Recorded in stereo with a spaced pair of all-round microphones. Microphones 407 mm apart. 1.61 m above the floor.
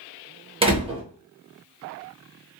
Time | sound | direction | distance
0.6 | a door slam | 15° right (ahead or behind) | 0.9 m